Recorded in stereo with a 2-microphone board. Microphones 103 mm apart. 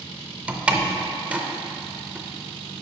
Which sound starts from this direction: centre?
A door slam, at 0.5 s.